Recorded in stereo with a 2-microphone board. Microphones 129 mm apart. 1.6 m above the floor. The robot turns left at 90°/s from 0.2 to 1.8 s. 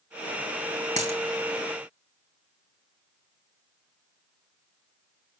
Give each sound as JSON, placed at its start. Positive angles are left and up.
{"t": 1.0, "sound": "a dropped coin", "side_deg": -60, "distance_m": 4.0}